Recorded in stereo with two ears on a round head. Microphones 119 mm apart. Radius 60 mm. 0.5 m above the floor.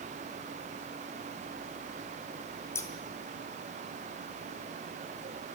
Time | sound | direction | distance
2.8 | scissors | 20° left (ahead or behind) | 2.5 m